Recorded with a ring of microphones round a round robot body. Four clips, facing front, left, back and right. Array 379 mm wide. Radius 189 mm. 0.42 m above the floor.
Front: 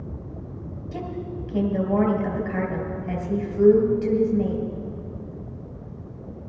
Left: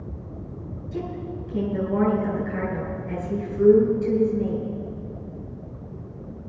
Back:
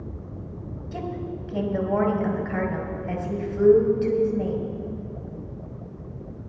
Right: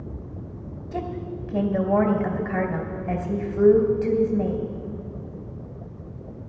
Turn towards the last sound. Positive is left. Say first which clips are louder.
# right 1 dB, even
turn(degrees=-105)